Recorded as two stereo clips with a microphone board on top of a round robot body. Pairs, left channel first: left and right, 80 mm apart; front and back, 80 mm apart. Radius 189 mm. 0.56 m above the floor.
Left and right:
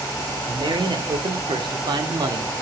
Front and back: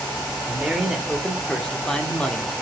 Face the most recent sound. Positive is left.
turn(degrees=-70)